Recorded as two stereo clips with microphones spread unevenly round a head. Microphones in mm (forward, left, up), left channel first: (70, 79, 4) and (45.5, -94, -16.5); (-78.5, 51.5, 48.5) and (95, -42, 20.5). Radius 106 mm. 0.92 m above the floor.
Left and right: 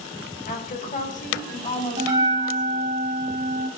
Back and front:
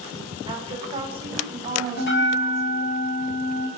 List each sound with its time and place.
0.5 s a woman speaking: 40° left, 5 m; by 3.0 s 30° left, 7.5 m
2.0 s a bell: 170° right, 4 m